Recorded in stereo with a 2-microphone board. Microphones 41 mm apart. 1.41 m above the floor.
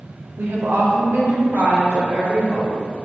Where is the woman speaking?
75° right (ahead or behind), 0.6 m; by 2.8 s 60° right (ahead or behind), 1.8 m.